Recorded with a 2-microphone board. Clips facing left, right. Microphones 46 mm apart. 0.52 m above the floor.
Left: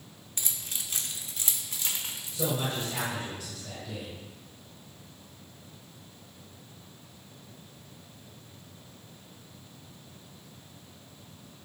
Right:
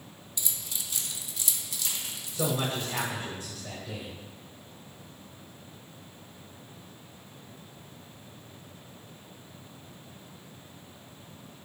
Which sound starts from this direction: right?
A man speaking, at 2.3 s.